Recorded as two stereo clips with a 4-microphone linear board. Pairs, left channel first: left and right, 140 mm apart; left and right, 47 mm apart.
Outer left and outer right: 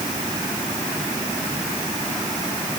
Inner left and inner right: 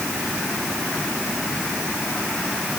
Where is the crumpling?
I don't hear crumpling.